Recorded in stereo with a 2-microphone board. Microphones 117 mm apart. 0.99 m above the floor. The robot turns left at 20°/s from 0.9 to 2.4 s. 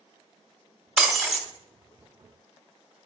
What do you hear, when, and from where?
1.0 s breaking glass: 5° right (ahead or behind), 1.2 m; by 1.4 s 5° left (ahead or behind), 1.2 m